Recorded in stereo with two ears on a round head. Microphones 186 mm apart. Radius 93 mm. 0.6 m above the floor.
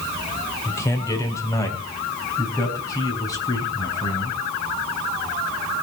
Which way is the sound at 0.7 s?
15° left (ahead or behind).